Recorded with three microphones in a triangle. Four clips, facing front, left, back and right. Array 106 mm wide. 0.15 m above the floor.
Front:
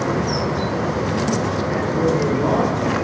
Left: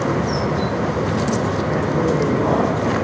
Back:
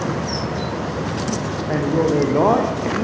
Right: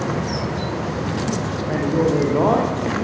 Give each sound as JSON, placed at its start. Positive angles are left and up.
{"t": 1.7, "sound": "a man speaking", "azimuth_deg": -155, "distance_m": 8.5}